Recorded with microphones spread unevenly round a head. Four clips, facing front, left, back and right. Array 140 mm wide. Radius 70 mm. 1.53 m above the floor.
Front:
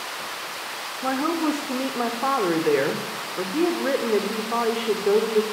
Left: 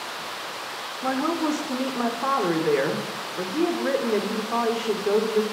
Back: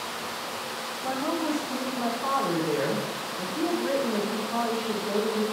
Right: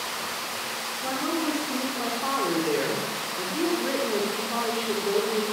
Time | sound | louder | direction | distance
1.0 | a woman speaking | left 4 dB, front 5 dB | 15° left | 4 m